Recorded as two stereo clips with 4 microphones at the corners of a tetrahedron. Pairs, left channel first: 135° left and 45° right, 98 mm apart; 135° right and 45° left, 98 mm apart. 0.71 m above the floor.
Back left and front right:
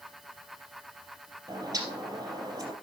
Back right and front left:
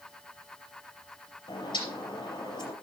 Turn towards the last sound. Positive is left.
turn(degrees=-100)